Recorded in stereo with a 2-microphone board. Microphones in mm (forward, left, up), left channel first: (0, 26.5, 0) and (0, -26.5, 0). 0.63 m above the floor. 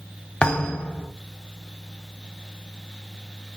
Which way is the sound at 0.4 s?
15° left (ahead or behind).